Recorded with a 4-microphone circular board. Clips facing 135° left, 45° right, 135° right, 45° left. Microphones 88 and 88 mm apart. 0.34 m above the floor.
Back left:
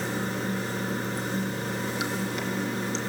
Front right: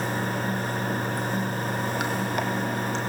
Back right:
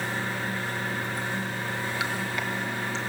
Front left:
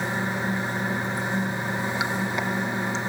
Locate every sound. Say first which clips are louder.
0.0 s running water: front right 2 dB, front left 3 dB; 20° right, 1.6 m